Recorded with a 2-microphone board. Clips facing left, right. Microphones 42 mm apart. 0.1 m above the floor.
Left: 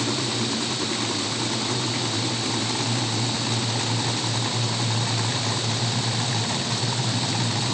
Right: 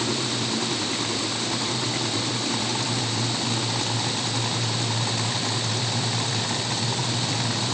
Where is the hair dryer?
I don't hear a hair dryer.